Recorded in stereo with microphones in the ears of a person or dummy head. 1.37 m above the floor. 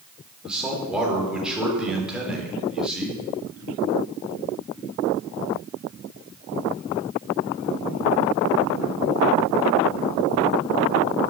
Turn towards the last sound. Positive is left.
turn(degrees=5)  # may be behind; listen again after turning